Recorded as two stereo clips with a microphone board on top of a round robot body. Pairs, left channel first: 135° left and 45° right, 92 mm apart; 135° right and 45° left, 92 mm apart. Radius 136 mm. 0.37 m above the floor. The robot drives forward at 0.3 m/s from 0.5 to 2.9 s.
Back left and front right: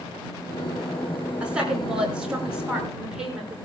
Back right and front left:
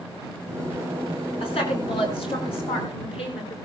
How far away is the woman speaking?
About 6 m.